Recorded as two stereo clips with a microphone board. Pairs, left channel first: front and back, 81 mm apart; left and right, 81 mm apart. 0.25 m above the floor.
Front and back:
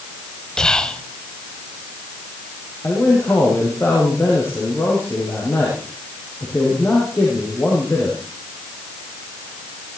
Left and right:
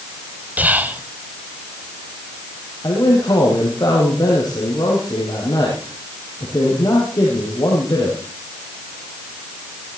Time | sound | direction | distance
0.6 | whispering | 65° right | 1.3 m
2.8 | a man speaking | 55° left | 6.5 m